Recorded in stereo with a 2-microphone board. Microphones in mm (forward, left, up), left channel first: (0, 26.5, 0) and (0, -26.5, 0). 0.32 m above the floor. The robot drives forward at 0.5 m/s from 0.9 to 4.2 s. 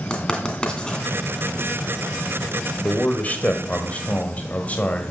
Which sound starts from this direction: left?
A man speaking, at 2.8 s.